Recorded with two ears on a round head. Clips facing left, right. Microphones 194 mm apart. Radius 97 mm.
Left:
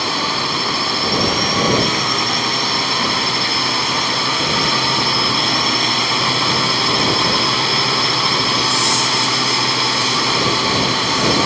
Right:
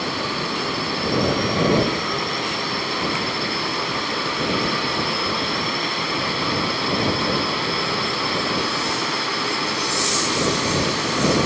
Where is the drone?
65° left (ahead or behind).